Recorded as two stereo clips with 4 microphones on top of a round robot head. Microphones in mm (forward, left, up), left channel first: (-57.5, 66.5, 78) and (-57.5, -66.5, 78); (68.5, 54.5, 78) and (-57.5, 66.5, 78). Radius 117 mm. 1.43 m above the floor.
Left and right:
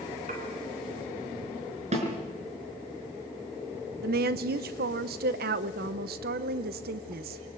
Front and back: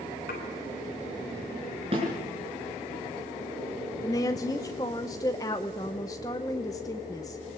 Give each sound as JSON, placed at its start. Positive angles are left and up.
{"t": 0.3, "sound": "dishes clattering", "azimuth_deg": -40, "distance_m": 4.0}
{"t": 1.9, "sound": "a snare drum", "azimuth_deg": -125, "distance_m": 4.5}
{"t": 4.0, "sound": "a woman speaking", "azimuth_deg": -80, "distance_m": 0.8}